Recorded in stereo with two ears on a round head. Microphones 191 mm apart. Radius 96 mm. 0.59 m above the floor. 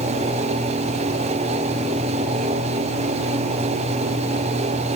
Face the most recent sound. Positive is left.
No sound to turn to.